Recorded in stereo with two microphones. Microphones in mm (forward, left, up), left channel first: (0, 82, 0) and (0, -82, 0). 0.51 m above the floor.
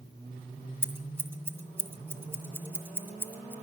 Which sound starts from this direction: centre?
Scissors, at 0.8 s.